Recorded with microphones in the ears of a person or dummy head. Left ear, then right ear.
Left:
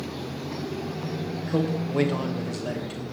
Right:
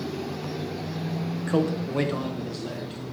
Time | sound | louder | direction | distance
1.5 | a man speaking | right 2 dB | 35° right (ahead or behind) | 1.0 m